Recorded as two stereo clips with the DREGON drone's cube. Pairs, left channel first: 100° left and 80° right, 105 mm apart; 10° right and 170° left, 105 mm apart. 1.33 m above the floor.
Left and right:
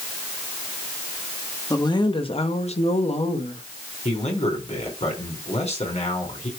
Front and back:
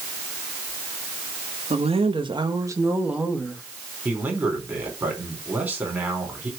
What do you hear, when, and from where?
1.7 s a woman speaking: 155° left, 1.6 m; by 3.6 s 75° left, 1.9 m
4.0 s a man speaking: 95° left, 4 m